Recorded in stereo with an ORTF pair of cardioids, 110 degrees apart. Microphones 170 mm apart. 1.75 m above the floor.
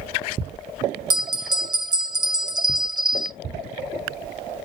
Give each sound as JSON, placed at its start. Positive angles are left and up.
{"t": 1.1, "sound": "a bell", "azimuth_deg": -25, "distance_m": 0.6}